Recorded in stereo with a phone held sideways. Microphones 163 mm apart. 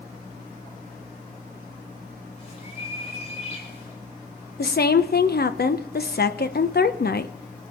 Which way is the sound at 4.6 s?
75° left (ahead or behind).